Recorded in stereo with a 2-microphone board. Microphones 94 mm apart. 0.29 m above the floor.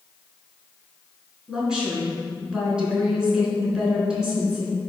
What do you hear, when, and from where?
1.5 s a woman speaking: 10° right (ahead or behind), 4 m